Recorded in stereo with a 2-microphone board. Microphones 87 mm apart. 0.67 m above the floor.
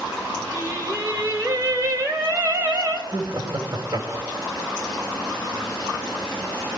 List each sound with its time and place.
0.5 s singing: 40° right (ahead or behind), 3 m
3.1 s laughter: 50° right (ahead or behind), 4 m